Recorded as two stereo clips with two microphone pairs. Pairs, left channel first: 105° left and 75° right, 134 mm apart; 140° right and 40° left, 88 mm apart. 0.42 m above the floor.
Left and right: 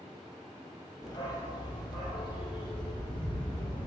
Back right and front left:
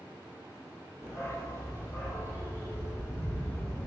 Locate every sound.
1.0 s a dog barking: 165° left, 4.5 m; by 3.9 s 155° left, 7 m